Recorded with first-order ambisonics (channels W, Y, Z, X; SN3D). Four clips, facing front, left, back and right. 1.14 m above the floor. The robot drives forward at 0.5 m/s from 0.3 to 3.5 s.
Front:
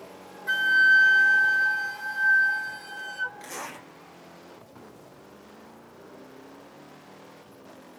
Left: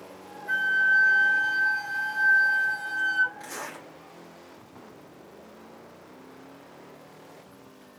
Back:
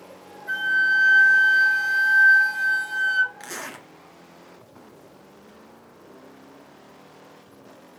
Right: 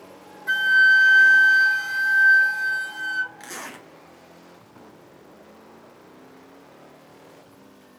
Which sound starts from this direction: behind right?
A zipper, at 3.4 s.